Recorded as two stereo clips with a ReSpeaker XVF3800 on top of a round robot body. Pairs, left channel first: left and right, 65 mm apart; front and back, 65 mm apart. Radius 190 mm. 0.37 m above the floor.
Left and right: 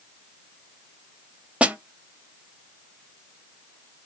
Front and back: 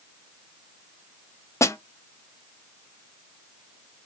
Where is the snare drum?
25° right, 0.7 m.